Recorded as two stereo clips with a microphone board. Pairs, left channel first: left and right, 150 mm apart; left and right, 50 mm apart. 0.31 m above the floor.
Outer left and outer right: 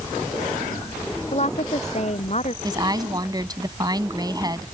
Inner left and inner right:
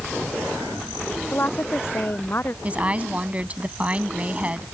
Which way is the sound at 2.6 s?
25° right (ahead or behind).